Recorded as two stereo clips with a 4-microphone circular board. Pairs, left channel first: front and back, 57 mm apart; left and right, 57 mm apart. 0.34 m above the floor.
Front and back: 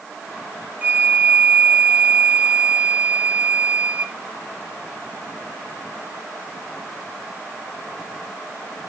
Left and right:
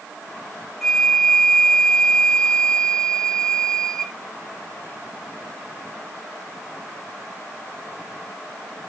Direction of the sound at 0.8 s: 170° left.